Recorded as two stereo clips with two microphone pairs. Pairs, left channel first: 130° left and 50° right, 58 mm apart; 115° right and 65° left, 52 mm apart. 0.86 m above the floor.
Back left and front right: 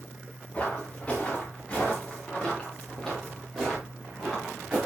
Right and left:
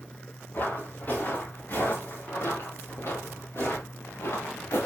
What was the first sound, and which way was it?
Footsteps, 165° right.